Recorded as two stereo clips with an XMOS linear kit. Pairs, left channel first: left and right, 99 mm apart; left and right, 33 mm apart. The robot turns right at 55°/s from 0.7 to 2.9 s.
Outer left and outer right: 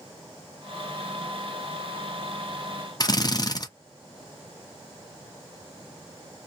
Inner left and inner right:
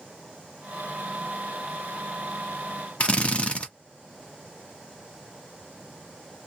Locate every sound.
3.0 s a drill: 40° left (ahead or behind), 0.6 m